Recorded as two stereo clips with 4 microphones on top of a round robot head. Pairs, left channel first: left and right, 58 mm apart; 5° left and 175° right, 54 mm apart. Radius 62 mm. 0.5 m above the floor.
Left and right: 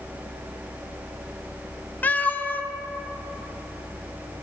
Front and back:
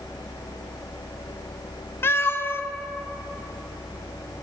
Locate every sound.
2.0 s a cat meowing: 35° left, 0.5 m